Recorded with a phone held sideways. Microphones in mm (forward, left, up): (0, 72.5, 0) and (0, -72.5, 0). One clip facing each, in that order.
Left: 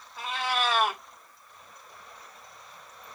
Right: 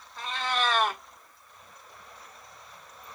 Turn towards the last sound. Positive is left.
turn(degrees=5)  # may be behind; listen again after turning